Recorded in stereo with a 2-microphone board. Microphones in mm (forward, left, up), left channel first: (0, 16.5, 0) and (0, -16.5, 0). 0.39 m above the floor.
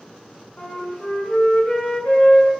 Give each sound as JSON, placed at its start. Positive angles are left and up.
{"t": 0.6, "sound": "a flute", "side_deg": 40, "distance_m": 0.8}